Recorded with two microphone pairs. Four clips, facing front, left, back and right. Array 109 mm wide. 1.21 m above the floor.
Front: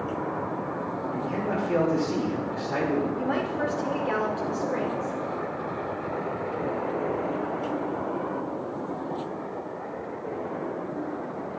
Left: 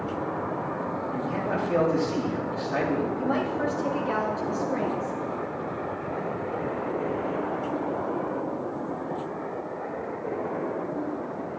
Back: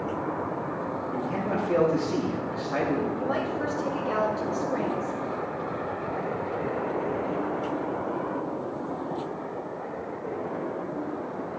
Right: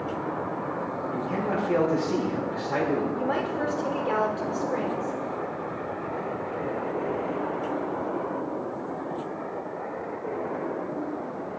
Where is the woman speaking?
65° right, 3.5 m.